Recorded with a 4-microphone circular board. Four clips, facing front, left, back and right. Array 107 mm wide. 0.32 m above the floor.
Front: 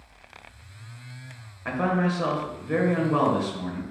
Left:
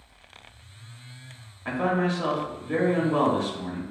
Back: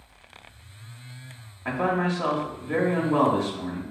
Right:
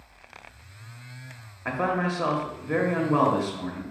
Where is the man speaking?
75° right, 1.1 m.